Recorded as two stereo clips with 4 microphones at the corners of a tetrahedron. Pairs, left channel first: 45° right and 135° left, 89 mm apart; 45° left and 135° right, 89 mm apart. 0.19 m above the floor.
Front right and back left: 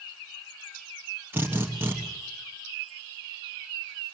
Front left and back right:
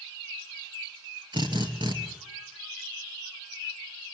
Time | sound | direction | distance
1.3 | a drill | 165° right | 2.5 m